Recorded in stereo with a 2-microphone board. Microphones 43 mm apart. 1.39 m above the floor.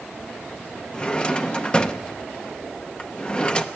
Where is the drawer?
20° left (ahead or behind), 0.7 m.